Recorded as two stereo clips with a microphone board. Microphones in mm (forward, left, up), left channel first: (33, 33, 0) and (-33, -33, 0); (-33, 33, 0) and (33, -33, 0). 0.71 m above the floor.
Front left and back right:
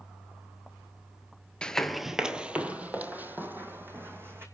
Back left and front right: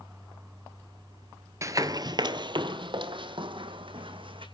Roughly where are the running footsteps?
Ahead right.